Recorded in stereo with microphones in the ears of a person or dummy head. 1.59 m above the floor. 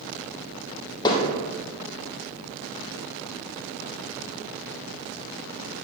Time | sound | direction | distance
1.1 | hammering | 20° left (ahead or behind) | 1.1 m